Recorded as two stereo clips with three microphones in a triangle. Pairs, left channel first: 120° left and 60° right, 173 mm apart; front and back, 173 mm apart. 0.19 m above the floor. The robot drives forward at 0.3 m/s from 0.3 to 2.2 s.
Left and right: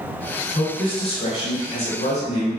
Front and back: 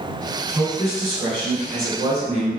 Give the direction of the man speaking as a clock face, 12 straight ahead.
8 o'clock.